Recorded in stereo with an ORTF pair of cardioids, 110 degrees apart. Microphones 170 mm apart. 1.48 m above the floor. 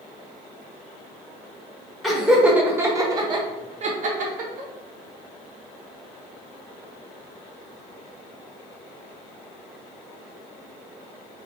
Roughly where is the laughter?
Ahead.